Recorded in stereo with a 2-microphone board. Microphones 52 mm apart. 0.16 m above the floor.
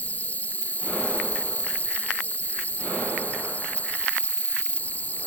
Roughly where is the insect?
Left.